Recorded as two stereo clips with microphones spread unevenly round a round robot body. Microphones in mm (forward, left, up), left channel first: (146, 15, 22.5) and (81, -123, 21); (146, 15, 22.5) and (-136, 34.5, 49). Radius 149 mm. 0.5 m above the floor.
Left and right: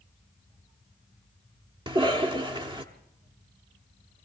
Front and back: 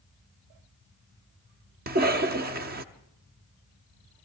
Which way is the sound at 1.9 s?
145° right.